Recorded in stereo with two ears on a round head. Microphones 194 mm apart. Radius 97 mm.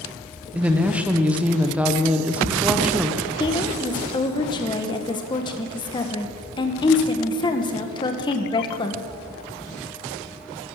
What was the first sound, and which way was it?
A woman speaking, 5° right (ahead or behind).